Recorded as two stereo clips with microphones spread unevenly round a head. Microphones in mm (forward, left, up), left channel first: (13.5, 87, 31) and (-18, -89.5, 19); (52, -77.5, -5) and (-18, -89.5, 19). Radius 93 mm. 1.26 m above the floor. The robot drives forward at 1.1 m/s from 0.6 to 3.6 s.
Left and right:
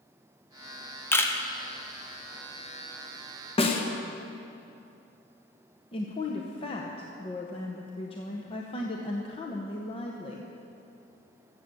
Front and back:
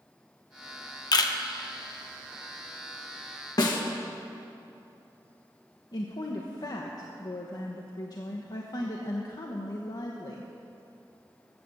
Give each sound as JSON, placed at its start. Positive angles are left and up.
{"t": 1.1, "sound": "a camera shutter", "azimuth_deg": 0, "distance_m": 1.0}
{"t": 3.6, "sound": "a snare drum", "azimuth_deg": 20, "distance_m": 1.2}
{"t": 5.9, "sound": "a woman speaking", "azimuth_deg": 20, "distance_m": 0.9}